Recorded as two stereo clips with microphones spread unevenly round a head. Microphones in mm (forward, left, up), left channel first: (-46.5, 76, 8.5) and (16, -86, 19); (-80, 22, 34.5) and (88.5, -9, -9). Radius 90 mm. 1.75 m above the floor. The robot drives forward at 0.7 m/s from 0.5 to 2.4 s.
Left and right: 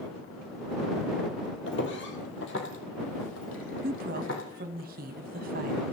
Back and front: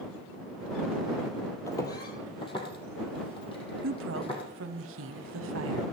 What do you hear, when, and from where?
1.7 s footsteps: 110° left, 3 m; by 4.4 s 120° left, 5 m
3.8 s a woman speaking: 25° right, 0.9 m